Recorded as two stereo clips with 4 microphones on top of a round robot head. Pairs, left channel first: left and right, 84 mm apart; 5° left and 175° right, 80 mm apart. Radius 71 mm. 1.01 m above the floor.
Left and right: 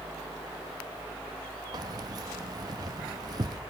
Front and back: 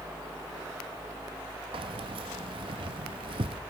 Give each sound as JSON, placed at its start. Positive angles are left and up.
{"t": 1.7, "sound": "keys jangling", "azimuth_deg": -145, "distance_m": 0.8}